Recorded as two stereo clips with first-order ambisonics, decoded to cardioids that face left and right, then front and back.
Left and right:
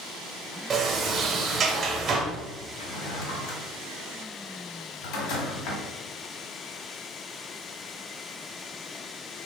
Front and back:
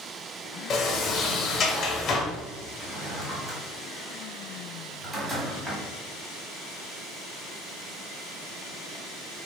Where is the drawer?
100° left, 1.4 m.